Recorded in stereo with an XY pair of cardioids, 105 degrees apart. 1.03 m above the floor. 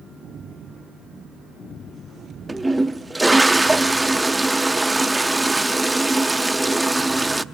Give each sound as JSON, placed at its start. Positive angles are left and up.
{"t": 2.5, "sound": "a toilet flushing", "azimuth_deg": -10, "distance_m": 0.9}